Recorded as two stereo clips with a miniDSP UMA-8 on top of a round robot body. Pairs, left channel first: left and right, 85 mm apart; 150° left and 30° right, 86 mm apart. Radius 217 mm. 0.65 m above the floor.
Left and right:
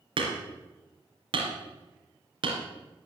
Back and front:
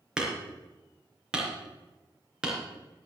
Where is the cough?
No cough in this recording.